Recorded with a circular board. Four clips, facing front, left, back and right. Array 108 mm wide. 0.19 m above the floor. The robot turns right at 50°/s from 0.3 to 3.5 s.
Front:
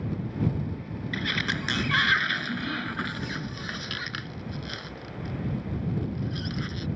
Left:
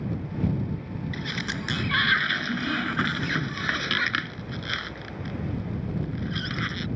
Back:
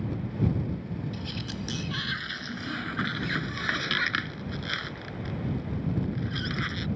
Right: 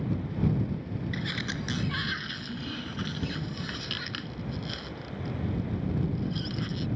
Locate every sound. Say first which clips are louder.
1.1 s a sliding door: left 2 dB, front 6 dB; straight ahead; by 6.9 s 120° left